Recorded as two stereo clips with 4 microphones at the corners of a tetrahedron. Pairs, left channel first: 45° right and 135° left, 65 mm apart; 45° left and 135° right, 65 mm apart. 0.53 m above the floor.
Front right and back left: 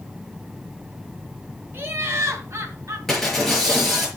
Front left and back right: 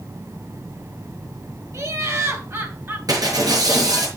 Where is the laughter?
170° right, 2.5 m; by 3.0 s 175° left, 3 m.